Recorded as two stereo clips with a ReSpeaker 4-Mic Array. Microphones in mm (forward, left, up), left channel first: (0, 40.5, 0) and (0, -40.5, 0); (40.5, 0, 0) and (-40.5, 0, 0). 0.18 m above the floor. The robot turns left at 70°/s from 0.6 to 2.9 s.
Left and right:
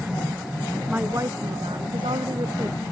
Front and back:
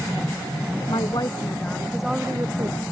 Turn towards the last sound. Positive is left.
turn(degrees=-155)